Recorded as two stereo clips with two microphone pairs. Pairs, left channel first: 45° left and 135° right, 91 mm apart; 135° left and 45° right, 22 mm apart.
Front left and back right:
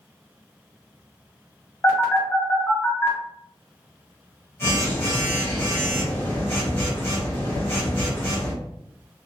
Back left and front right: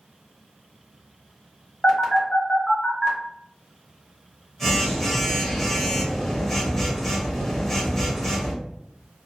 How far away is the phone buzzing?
About 0.9 m.